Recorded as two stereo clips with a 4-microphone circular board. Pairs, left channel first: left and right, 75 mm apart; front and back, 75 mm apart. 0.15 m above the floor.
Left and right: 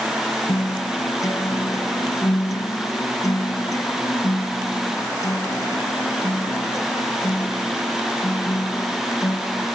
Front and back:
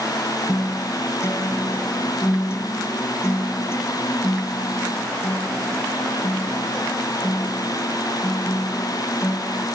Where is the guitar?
50° left, 1.1 m.